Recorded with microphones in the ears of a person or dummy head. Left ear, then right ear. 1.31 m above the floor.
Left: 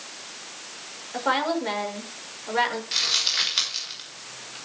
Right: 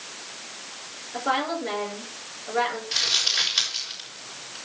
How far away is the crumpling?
About 6.5 m.